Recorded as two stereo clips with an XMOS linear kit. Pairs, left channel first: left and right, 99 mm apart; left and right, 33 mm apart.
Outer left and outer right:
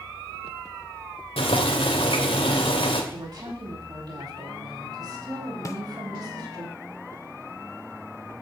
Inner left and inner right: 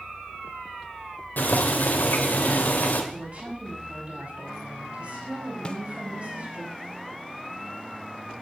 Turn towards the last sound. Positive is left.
turn(degrees=30)  # may be behind; listen again after turning